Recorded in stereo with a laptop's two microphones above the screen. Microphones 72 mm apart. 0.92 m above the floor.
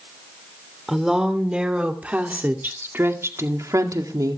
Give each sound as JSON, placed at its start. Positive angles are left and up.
{"t": 0.9, "sound": "a woman speaking", "side_deg": -5, "distance_m": 3.0}